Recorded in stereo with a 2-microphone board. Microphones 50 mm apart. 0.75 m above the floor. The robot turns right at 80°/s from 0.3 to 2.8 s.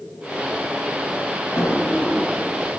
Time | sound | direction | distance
1.6 | a drawer | 80° left | 1.2 m